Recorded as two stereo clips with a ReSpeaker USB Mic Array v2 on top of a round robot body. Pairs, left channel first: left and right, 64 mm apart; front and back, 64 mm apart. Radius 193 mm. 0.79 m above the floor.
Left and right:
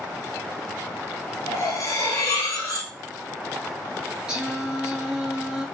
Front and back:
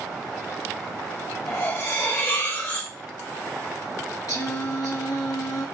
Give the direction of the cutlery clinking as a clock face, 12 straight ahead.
10 o'clock.